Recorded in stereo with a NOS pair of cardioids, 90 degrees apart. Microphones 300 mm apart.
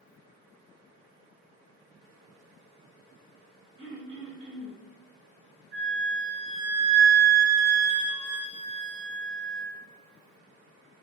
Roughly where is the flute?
Ahead right.